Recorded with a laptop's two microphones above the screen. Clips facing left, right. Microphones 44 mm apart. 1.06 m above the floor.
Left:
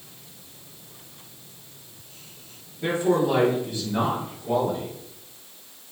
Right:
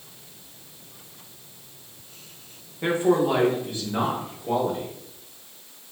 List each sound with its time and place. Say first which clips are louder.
2.8 s a man speaking: right 1 dB; 35° right (ahead or behind), 1.0 m; by 4.9 s 40° right (ahead or behind), 2.0 m